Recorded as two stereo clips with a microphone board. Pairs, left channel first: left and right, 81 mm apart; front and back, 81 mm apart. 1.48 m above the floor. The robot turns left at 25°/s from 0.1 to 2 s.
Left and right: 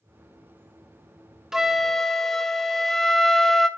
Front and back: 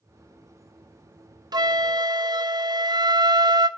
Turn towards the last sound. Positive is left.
turn(degrees=175)